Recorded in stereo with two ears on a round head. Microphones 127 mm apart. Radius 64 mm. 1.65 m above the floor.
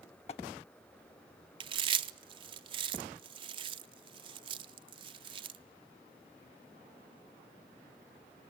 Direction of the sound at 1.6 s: 35° right (ahead or behind).